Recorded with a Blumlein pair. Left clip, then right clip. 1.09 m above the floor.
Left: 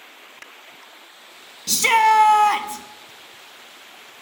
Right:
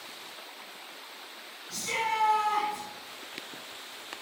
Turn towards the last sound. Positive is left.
turn(degrees=45)